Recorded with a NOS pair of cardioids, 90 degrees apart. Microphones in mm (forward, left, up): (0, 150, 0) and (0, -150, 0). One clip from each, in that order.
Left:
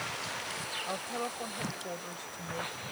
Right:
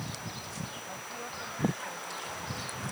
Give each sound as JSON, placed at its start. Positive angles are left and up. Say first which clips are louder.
{"t": 0.9, "sound": "a woman speaking", "louder": "left 4 dB", "azimuth_deg": 65}